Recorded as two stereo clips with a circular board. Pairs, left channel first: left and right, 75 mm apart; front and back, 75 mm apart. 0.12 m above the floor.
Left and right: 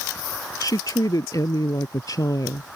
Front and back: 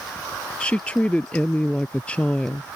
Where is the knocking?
No knocking in this recording.